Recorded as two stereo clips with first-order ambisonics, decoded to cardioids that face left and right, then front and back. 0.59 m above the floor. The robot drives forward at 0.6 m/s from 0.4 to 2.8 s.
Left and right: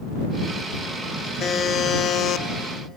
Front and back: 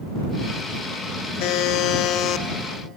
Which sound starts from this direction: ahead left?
A buzzer, at 1.4 s.